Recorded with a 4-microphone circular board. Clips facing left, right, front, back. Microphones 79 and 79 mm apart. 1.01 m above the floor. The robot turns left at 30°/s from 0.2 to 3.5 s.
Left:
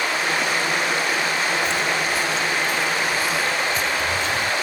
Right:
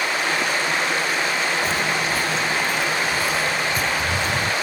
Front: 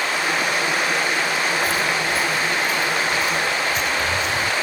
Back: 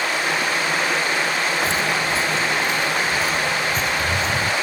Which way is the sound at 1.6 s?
125° right.